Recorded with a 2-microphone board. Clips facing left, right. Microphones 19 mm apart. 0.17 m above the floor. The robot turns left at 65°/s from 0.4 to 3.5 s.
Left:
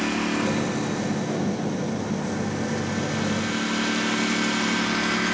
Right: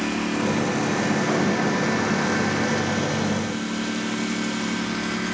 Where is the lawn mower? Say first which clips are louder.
Even; centre (ahead or behind); by 5.3 s 20° left (ahead or behind).